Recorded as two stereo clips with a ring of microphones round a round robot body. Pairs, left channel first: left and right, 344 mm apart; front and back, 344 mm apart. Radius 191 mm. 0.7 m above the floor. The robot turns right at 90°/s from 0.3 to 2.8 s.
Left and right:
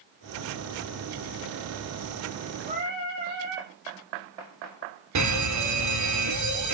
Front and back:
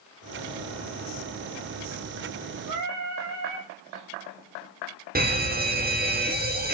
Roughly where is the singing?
Behind.